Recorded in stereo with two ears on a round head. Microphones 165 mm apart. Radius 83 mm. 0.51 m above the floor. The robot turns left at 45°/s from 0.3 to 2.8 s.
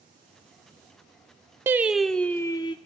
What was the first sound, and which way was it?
Singing, 165° right.